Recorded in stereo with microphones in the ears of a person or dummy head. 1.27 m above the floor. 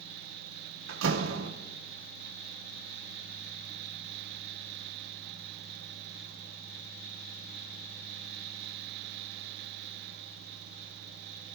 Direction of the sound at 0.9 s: 85° right.